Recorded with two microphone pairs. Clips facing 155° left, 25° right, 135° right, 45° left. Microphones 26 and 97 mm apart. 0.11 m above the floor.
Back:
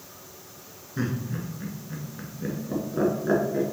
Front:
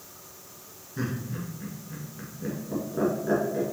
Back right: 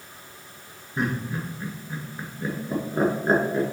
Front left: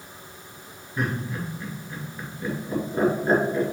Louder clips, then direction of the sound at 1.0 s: Back 3 dB, back right 1 dB; 150° right.